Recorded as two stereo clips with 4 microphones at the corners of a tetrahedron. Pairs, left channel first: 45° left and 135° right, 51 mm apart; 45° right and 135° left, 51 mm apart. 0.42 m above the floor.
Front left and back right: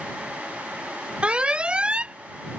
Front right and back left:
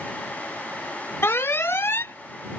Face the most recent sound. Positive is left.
turn(degrees=-70)